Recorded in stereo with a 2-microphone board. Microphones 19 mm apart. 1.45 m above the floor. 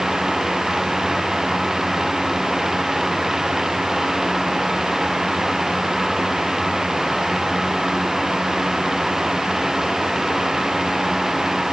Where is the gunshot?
No gunshot in this recording.